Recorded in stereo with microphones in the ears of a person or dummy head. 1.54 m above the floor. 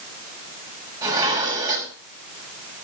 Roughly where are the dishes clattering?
Centre.